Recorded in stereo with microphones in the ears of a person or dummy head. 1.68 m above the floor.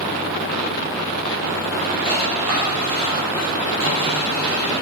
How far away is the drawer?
About 1.8 m.